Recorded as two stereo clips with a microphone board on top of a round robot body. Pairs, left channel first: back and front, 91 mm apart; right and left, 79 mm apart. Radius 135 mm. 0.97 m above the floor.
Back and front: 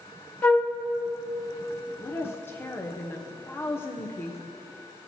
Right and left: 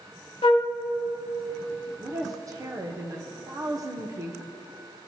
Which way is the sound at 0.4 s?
110° right.